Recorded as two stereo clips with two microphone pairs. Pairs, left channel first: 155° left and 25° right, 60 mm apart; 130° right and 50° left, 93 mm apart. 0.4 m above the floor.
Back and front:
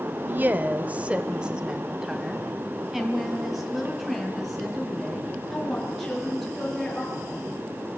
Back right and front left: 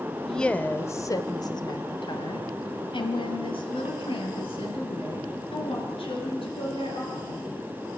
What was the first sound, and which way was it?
A woman speaking, 50° right.